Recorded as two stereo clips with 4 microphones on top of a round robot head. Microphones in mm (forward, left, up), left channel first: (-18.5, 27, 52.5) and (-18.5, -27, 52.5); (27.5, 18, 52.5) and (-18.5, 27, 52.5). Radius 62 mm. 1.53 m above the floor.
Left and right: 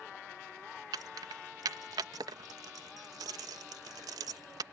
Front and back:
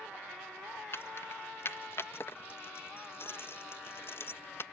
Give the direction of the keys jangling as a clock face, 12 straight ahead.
2 o'clock.